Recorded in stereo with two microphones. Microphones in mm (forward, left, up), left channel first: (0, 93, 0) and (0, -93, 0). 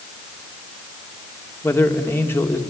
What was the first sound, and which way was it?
A man speaking, 10° left (ahead or behind).